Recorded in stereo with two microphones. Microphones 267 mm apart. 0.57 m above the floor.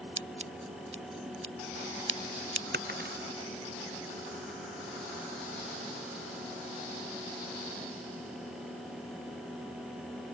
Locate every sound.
0.2 s scissors: 45° right (ahead or behind)
2.7 s breaking glass: 35° right (ahead or behind)